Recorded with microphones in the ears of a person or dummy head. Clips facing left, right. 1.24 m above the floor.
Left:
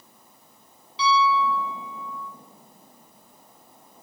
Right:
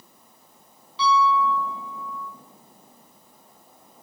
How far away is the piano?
About 3 m.